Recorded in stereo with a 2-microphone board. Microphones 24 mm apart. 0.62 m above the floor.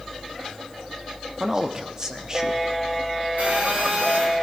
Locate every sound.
1.4 s a man speaking: 25° right (ahead or behind), 0.8 m
3.4 s a phone buzzing: 80° right, 4.5 m